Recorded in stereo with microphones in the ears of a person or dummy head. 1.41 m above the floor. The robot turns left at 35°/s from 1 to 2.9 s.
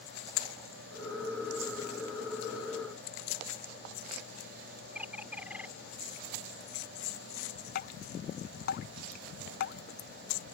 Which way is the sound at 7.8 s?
55° left (ahead or behind).